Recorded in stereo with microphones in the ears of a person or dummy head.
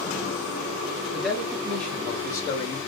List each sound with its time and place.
1.1 s a man speaking: 5° right (ahead or behind), 1.7 m; by 2.8 s 30° left (ahead or behind), 1.1 m